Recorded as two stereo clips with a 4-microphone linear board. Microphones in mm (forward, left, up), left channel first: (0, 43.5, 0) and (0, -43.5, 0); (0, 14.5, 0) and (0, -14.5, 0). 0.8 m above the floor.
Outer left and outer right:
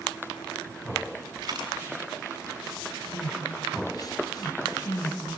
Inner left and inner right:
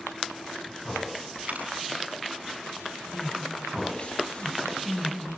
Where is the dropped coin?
55° right (ahead or behind), 6.5 m.